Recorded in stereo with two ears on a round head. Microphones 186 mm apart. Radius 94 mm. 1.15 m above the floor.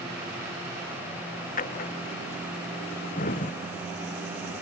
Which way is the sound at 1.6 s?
40° left (ahead or behind).